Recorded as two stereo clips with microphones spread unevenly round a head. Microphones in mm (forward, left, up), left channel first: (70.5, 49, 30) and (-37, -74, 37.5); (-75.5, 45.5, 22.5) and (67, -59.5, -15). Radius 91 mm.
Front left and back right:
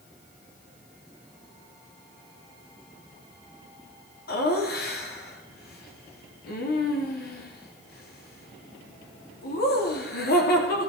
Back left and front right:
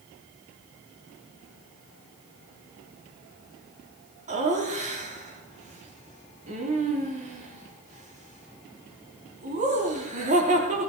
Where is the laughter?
20° left, 3 m.